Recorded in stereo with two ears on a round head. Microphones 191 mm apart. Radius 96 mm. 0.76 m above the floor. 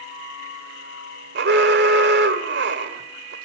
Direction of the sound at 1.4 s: 55° right (ahead or behind).